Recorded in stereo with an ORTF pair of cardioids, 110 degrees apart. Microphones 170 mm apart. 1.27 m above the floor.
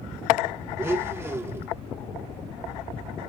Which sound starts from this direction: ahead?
A blender, at 0.8 s.